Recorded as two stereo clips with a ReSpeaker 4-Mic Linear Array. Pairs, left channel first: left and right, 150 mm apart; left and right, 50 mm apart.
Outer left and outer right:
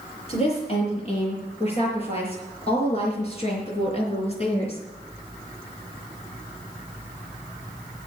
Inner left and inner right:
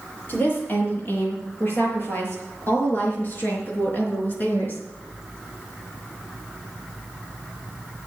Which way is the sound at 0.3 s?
40° left (ahead or behind).